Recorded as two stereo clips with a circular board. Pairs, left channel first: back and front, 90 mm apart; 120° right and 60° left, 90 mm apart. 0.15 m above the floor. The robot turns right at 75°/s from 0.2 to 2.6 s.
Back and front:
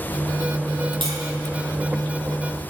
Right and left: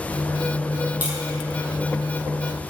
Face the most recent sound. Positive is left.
turn(degrees=110)